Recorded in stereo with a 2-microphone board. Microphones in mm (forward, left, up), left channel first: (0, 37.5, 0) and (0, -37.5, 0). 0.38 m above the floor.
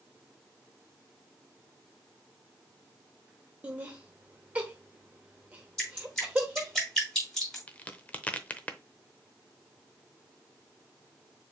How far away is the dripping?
About 4.5 m.